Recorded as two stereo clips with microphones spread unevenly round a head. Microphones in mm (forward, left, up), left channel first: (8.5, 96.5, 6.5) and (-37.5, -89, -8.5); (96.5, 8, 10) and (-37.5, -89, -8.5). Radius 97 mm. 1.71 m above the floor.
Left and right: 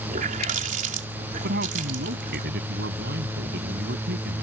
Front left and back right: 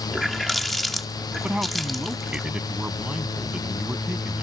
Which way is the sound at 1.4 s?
60° right.